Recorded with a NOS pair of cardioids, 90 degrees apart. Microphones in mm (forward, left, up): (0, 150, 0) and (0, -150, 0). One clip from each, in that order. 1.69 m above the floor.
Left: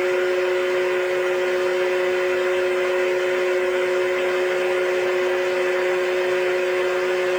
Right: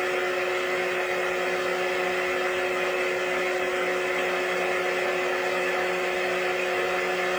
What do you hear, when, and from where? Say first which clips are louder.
0.0 s a fan: left 5 dB; 10° left, 0.8 m